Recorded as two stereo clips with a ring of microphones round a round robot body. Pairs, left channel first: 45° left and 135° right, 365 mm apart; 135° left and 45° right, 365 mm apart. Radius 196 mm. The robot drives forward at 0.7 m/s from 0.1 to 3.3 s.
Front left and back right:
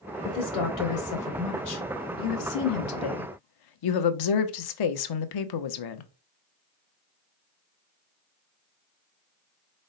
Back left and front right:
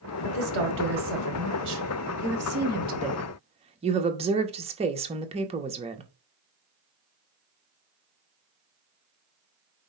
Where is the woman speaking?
5° left, 3 m; by 6.1 s 30° left, 0.8 m.